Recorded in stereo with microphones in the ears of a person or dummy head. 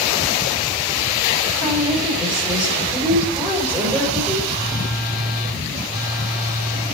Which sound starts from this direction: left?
A phone buzzing, at 4.5 s.